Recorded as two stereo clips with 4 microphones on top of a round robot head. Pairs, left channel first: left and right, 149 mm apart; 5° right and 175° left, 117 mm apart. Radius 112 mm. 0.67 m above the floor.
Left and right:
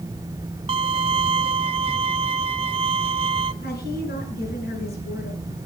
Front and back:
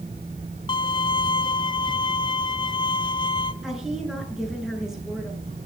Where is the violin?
45° right, 0.8 m.